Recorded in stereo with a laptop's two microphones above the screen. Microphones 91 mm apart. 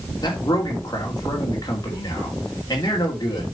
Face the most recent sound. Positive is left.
turn(degrees=40)  # may be behind; listen again after turning